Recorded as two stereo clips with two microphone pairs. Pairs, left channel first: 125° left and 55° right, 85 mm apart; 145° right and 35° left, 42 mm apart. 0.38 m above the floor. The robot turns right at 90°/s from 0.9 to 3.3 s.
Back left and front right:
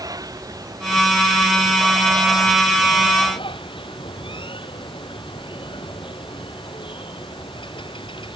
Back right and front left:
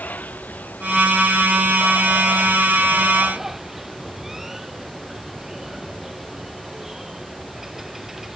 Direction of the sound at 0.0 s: 95° right.